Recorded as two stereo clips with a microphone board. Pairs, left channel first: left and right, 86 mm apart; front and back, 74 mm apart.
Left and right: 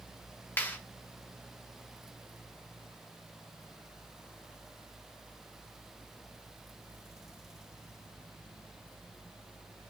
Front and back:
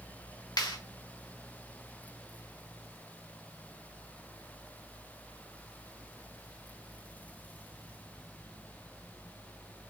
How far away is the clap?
About 2.5 m.